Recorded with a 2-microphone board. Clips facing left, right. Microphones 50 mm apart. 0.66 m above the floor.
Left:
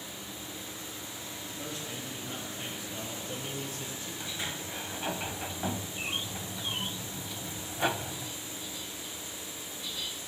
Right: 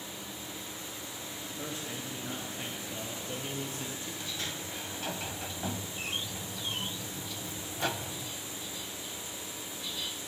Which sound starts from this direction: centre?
A sliding door, at 4.2 s.